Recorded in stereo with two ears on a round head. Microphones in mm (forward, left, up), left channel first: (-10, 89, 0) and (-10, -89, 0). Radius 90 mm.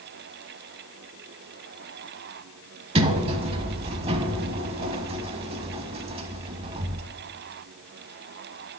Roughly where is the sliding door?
Right.